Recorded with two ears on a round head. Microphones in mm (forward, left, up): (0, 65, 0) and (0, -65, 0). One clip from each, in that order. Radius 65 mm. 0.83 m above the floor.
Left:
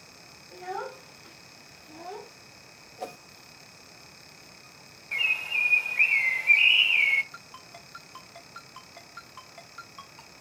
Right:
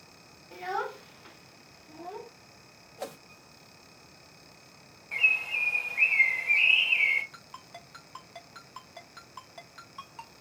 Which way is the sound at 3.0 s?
25° right (ahead or behind).